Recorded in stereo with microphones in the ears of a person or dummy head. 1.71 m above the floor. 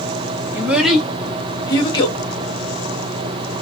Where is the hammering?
I don't hear hammering.